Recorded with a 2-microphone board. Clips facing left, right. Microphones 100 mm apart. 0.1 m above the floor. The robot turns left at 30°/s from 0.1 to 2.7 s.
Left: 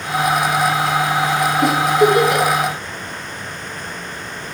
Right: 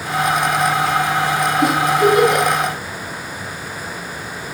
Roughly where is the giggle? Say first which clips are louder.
Left 1 dB; centre.